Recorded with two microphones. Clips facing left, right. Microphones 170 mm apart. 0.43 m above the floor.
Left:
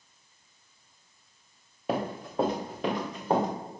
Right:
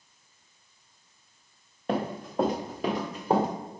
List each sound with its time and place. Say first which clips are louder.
1.9 s running footsteps: right 1 dB; 5° left (ahead or behind), 2.5 m; by 3.5 s 5° right (ahead or behind), 4 m